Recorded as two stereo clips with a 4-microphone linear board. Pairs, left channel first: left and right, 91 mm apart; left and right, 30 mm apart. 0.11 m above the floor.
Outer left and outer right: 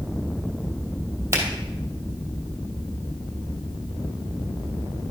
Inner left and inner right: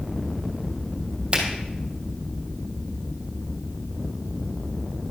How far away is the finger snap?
About 2.5 m.